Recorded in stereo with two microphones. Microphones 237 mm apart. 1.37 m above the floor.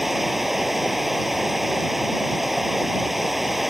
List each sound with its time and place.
0.0 s running water: centre (ahead or behind)